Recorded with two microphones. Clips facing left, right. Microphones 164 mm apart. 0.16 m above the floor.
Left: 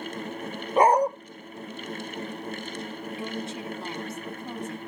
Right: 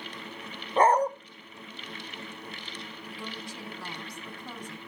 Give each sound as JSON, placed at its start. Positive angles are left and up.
{"t": 0.8, "sound": "a dog barking", "side_deg": 10, "distance_m": 1.2}
{"t": 3.1, "sound": "a woman speaking", "side_deg": 25, "distance_m": 1.1}